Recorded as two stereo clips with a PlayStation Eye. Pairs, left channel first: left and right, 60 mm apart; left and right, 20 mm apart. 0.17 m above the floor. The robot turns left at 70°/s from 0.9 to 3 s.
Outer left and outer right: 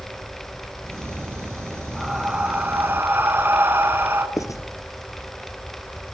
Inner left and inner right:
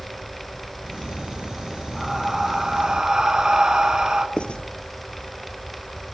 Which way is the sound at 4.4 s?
70° left (ahead or behind).